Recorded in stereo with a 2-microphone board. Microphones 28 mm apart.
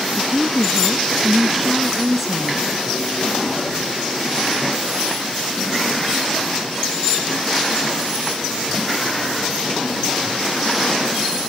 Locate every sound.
0.2 s a woman speaking: 5° right (ahead or behind)